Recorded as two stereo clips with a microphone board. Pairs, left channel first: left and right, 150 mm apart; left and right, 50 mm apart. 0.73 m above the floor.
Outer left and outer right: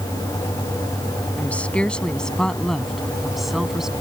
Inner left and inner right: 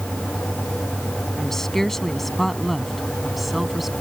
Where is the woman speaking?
10° left (ahead or behind); by 3.9 s 5° right (ahead or behind).